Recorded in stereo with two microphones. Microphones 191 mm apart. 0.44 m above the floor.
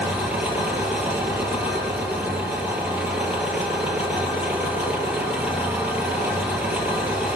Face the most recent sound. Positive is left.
turn(degrees=-5)  # may be behind; listen again after turning